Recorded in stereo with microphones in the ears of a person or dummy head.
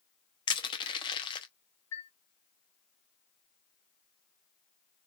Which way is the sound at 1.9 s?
20° left (ahead or behind).